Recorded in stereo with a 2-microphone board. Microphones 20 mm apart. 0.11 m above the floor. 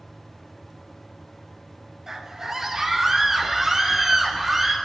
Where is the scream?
30° right (ahead or behind), 2.5 m; by 4.8 s 15° right (ahead or behind), 3.5 m.